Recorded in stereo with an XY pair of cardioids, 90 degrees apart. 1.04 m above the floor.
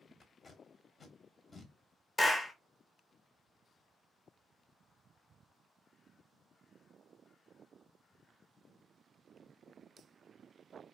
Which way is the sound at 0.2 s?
45° left.